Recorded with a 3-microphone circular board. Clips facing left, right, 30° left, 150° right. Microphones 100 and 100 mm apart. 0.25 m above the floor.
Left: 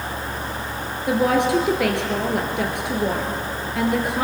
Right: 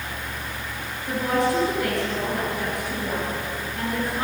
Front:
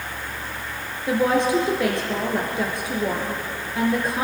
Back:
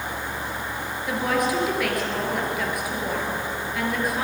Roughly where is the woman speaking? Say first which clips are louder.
Left 4 dB, front 5 dB; left.